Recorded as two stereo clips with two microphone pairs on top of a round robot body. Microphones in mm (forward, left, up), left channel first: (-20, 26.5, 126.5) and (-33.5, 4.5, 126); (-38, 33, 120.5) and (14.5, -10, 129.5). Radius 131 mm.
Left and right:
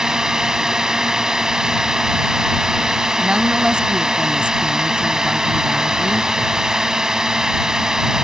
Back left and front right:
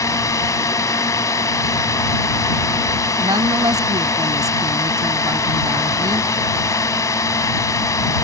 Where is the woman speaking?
70° right.